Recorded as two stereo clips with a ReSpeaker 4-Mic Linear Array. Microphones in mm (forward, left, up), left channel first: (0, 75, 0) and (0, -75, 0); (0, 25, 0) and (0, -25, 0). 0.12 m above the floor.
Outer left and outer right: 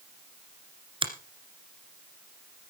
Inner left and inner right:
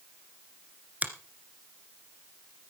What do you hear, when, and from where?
1.0 s a finger snap: 35° right (ahead or behind), 1.9 m